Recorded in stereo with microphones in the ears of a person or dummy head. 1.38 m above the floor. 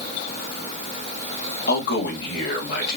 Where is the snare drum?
No snare drum in this recording.